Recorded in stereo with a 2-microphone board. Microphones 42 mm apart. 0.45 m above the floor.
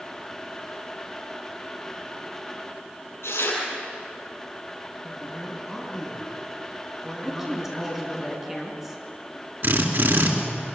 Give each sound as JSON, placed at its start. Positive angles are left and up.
{"t": 3.2, "sound": "tearing paper", "side_deg": 85, "distance_m": 7.5}
{"t": 5.0, "sound": "a man speaking", "side_deg": -5, "distance_m": 5.0}
{"t": 7.2, "sound": "a woman speaking", "side_deg": -10, "distance_m": 4.5}
{"t": 9.6, "sound": "a drill", "side_deg": -60, "distance_m": 3.0}